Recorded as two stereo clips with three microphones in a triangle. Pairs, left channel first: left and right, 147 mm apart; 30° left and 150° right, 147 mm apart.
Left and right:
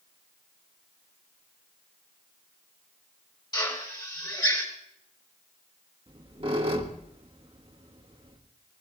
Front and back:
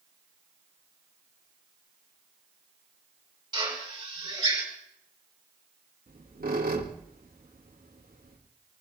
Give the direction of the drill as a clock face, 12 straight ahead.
7 o'clock.